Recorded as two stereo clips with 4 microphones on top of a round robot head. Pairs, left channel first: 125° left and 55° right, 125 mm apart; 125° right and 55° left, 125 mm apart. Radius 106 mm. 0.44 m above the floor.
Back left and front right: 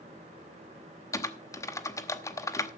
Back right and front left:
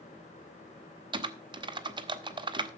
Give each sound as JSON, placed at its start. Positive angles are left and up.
{"t": 1.1, "sound": "typing on a keyboard", "azimuth_deg": 75, "distance_m": 1.6}